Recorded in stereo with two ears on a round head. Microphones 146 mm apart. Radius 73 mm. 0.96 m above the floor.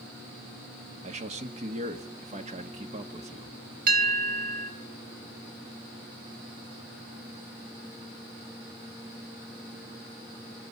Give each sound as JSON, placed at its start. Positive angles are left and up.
{"t": 1.0, "sound": "a man speaking", "side_deg": -40, "distance_m": 1.7}
{"t": 3.9, "sound": "a bell", "side_deg": -50, "distance_m": 3.0}